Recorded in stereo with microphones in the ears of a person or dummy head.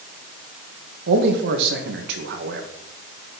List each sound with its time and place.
1.1 s a man speaking: 60° right (ahead or behind), 1.5 m